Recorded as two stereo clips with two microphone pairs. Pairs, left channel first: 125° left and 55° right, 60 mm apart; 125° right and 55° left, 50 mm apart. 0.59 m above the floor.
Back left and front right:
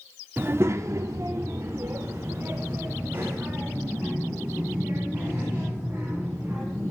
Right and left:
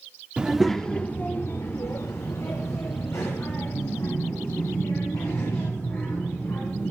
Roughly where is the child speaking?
Ahead.